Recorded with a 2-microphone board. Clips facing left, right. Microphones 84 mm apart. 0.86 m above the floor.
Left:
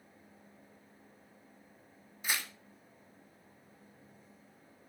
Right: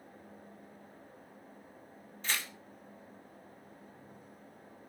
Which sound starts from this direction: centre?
Tearing paper, at 2.2 s.